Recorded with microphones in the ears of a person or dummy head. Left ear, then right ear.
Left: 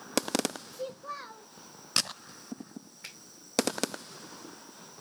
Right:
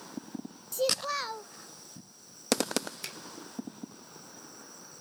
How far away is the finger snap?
About 2.5 m.